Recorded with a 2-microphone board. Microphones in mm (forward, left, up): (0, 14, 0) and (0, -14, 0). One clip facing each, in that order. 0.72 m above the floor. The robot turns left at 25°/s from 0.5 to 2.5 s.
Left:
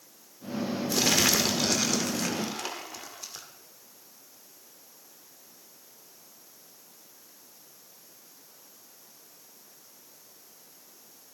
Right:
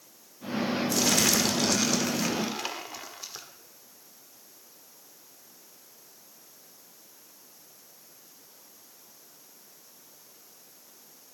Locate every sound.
0.9 s crumpling: 25° left, 1.9 m; by 3.5 s 15° right, 1.9 m